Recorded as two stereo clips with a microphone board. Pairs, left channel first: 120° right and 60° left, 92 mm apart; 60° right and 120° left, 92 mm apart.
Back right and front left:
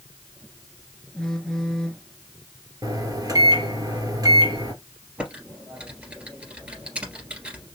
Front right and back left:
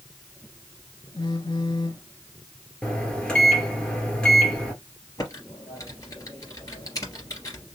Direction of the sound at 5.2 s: 15° right.